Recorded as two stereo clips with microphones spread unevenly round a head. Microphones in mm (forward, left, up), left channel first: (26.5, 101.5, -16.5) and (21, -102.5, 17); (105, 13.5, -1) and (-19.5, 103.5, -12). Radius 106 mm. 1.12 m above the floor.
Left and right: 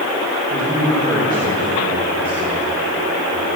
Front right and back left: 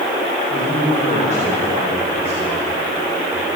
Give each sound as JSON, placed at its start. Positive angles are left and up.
{"t": 0.5, "sound": "a man speaking", "azimuth_deg": -20, "distance_m": 4.5}